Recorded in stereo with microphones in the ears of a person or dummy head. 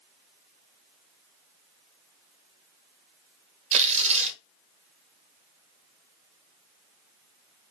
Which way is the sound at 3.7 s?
40° right (ahead or behind).